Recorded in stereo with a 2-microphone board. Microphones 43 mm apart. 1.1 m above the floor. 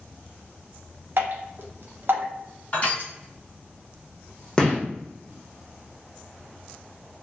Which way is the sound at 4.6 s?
20° left (ahead or behind).